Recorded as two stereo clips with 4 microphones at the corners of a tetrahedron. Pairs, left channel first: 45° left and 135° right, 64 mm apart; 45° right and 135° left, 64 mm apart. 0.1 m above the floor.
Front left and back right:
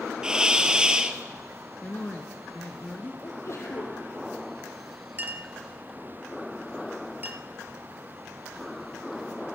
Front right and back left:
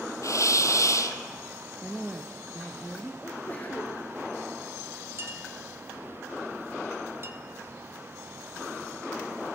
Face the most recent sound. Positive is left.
turn(degrees=170)